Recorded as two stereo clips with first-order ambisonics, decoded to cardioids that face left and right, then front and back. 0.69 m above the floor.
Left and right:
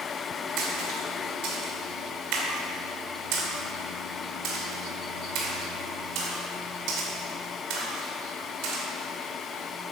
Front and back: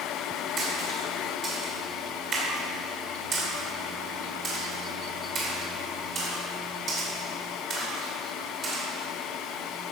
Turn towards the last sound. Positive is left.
turn(degrees=-115)